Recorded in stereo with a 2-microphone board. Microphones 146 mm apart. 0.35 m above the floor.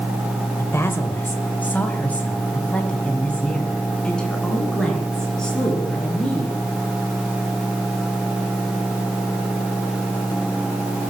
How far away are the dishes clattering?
No dishes clattering in this recording.